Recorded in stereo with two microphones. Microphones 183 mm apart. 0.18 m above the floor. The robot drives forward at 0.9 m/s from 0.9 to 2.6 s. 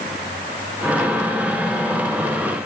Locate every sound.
Only background noise.